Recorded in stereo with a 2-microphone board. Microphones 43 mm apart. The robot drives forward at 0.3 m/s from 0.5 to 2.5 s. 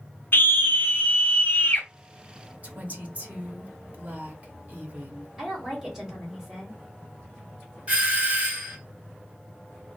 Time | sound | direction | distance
0.3 | a scream | 55° left (ahead or behind) | 0.9 m
2.6 | a woman speaking | 35° right (ahead or behind) | 0.9 m
5.4 | a woman speaking | 5° right (ahead or behind) | 1.9 m
7.9 | a doorbell | 35° right (ahead or behind) | 1.0 m